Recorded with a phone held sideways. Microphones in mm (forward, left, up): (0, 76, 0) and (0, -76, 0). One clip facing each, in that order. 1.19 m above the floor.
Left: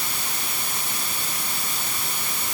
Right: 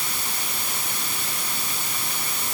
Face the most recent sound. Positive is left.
No sound to turn to.